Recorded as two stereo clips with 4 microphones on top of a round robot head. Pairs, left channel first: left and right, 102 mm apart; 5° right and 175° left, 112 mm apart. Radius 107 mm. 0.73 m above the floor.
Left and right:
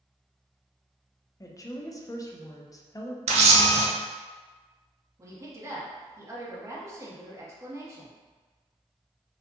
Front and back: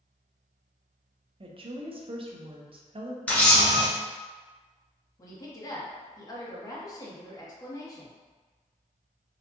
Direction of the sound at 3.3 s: 85° right.